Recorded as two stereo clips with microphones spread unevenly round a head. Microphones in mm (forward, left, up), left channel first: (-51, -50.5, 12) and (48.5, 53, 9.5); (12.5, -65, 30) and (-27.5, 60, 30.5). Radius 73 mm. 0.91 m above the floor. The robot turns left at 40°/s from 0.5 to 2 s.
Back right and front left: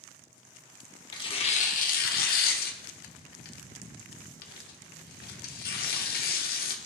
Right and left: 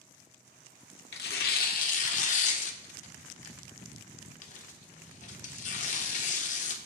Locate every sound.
1.1 s tearing paper: 70° right, 1.2 m; by 6.8 s 105° right, 1.2 m